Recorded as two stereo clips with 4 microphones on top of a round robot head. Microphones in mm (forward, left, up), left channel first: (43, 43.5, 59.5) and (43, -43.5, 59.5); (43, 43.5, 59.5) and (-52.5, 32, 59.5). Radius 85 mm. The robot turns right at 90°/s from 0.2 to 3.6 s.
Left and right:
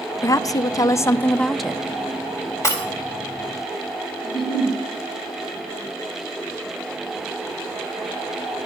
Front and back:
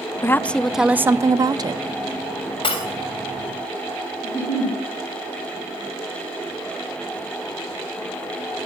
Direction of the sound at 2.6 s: 35° left.